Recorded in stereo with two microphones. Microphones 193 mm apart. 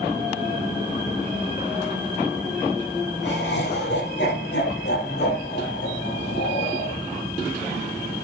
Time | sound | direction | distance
3.2 | laughter | 65° left (ahead or behind) | 5.5 m